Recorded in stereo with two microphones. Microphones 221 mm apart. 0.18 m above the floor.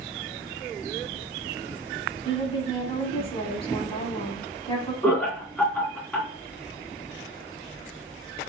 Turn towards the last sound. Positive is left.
turn(degrees=5)  # may be behind; listen again after turning